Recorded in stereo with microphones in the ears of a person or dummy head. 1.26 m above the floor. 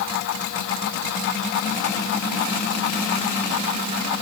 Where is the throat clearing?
No throat clearing in this recording.